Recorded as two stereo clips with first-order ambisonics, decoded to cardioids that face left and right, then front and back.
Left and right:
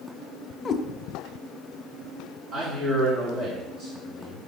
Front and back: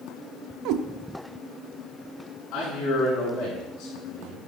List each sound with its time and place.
0.7 s a cat meowing: 165° left, 0.8 m
2.5 s a man speaking: 35° right, 5.5 m